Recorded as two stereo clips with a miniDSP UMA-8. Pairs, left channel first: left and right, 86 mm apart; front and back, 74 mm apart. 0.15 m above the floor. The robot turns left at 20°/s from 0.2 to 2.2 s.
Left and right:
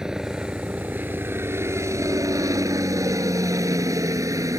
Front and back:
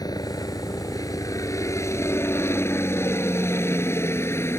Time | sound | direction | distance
0.0 | a helicopter | 10° right | ?